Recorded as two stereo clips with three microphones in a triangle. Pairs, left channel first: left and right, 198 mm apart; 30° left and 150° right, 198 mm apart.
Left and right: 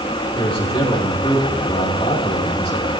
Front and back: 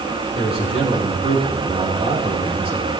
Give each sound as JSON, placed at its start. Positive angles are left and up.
{"t": 0.3, "sound": "a man speaking", "azimuth_deg": 150, "distance_m": 5.0}